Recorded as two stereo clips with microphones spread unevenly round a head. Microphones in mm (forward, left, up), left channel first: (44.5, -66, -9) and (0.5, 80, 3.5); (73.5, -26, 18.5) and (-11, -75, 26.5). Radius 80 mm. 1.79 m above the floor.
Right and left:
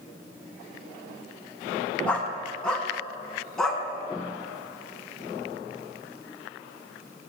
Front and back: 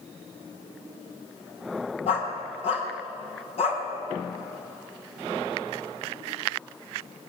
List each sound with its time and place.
2.1 s a dog barking: 10° left, 4 m; by 3.8 s 15° left, 5 m